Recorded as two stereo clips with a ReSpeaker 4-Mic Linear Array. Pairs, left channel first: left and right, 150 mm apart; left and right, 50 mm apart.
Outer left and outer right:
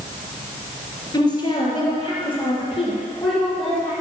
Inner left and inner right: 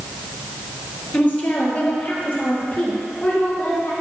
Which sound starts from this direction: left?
A woman speaking, at 1.1 s.